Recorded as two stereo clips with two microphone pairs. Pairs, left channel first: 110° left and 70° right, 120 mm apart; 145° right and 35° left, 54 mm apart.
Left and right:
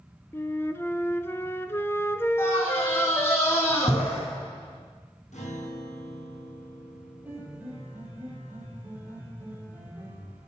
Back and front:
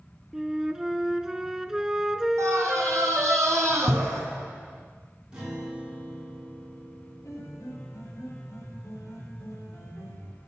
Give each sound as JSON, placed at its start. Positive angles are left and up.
{"t": 0.3, "sound": "a flute", "azimuth_deg": 90, "distance_m": 0.6}
{"t": 2.4, "sound": "a scream", "azimuth_deg": 50, "distance_m": 4.0}
{"t": 5.3, "sound": "a guitar", "azimuth_deg": 105, "distance_m": 5.0}
{"t": 7.2, "sound": "a piano", "azimuth_deg": -140, "distance_m": 3.0}